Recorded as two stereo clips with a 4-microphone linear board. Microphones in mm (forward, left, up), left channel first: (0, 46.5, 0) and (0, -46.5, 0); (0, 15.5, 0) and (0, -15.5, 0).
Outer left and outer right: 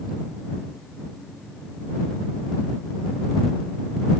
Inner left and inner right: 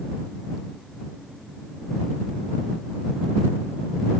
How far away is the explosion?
I don't hear an explosion.